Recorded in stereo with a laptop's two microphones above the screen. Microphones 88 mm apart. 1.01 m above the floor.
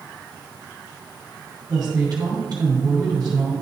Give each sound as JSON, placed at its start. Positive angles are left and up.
{"t": 1.7, "sound": "a woman speaking", "side_deg": -55, "distance_m": 2.5}